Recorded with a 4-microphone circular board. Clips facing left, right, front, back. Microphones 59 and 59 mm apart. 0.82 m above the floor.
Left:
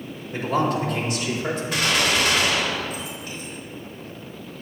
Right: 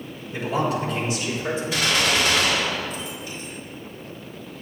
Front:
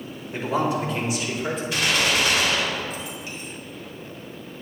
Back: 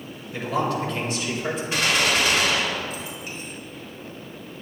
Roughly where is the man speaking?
Ahead left.